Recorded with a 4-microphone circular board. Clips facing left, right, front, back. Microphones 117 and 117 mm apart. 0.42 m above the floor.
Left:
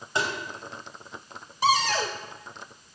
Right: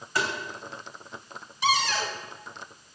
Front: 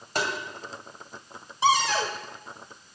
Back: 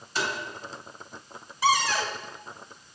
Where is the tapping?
25° left, 2.5 m.